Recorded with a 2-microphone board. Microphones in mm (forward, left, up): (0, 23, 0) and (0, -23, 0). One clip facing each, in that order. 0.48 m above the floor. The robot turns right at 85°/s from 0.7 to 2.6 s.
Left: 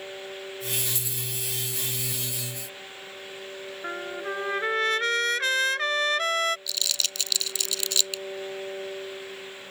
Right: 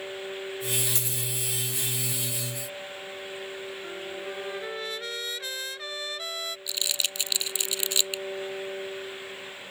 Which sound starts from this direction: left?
A trumpet, at 3.8 s.